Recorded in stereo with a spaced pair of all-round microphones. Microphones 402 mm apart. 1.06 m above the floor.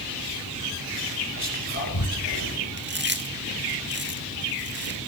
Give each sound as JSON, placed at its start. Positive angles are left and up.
{"t": 1.4, "sound": "whispering", "side_deg": 70, "distance_m": 5.5}
{"t": 2.8, "sound": "chewing", "side_deg": -25, "distance_m": 1.8}